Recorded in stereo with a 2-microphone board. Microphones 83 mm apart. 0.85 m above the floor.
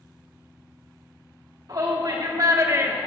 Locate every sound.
1.7 s a shout: 50° right (ahead or behind), 1.9 m; by 3.1 s 15° right (ahead or behind), 0.7 m